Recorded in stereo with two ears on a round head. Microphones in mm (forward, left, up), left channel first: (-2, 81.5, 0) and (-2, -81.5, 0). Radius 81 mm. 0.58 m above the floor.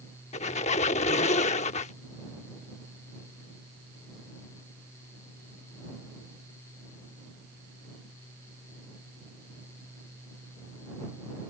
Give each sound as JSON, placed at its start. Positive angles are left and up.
{"t": 0.3, "sound": "a squeak", "side_deg": 40}